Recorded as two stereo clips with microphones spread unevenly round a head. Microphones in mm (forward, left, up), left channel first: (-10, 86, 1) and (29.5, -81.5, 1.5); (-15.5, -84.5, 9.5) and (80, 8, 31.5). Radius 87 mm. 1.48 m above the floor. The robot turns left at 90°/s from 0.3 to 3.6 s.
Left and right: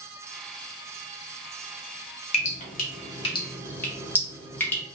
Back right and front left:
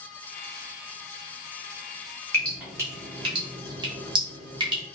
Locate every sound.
2.3 s dripping: 140° left, 1.0 m; by 4.8 s 30° left, 1.0 m